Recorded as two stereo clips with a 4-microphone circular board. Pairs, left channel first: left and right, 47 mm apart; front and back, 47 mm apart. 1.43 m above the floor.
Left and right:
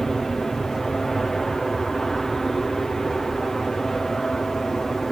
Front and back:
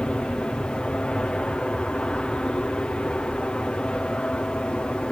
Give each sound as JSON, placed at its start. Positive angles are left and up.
{"t": 0.0, "sound": "an aircraft", "azimuth_deg": 20}